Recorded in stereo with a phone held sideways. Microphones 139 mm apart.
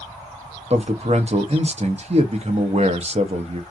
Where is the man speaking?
50° right (ahead or behind), 0.8 m.